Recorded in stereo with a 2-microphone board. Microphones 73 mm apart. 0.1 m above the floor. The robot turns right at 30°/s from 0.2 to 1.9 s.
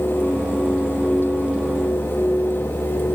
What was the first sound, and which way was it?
Only background noise.